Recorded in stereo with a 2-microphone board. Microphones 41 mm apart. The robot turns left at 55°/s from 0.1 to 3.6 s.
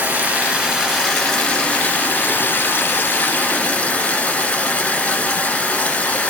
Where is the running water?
120° right, 1.4 m; by 6.3 s 45° left, 1.4 m.